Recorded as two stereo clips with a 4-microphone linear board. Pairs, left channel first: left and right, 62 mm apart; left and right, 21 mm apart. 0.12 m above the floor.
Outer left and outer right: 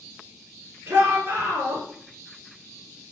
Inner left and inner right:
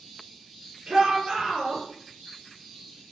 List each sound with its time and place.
0.9 s a shout: 30° right (ahead or behind), 1.4 m